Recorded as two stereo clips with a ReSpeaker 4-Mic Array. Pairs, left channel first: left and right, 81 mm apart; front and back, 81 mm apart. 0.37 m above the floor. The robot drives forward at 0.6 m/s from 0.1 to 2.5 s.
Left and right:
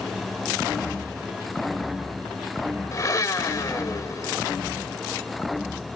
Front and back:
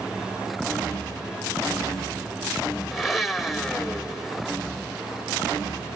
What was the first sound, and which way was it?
A blender, 95° left.